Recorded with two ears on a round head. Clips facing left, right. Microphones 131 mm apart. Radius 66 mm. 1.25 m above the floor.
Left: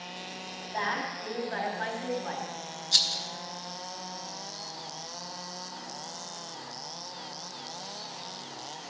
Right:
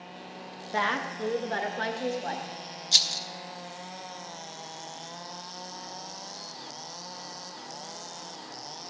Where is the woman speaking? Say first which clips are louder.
Right 3 dB; 85° right, 1.3 m; by 2.5 s 60° right (ahead or behind), 2 m.